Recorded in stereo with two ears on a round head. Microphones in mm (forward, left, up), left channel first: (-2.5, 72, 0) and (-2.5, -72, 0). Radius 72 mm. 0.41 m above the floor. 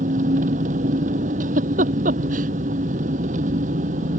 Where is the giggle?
50° right (ahead or behind).